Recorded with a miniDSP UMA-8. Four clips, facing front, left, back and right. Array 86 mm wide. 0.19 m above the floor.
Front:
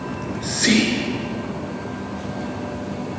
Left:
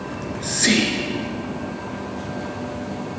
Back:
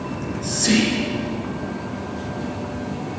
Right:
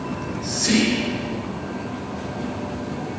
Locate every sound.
0.1 s whispering: 40° left, 2.5 m